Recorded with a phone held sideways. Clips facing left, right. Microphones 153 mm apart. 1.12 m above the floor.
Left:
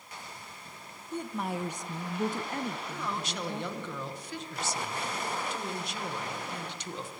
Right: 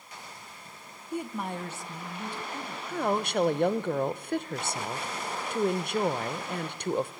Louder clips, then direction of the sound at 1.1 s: Right 1 dB; 10° right (ahead or behind).